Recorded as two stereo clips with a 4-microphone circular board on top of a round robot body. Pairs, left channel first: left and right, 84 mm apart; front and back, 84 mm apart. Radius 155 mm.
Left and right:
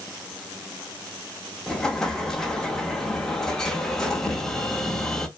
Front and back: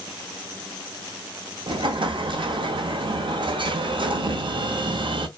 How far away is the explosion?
About 0.7 m.